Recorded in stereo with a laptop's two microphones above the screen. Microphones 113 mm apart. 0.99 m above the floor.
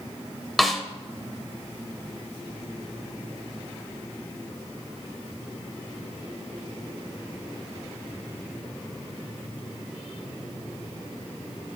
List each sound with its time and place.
0.6 s a snare drum: centre (ahead or behind), 1.1 m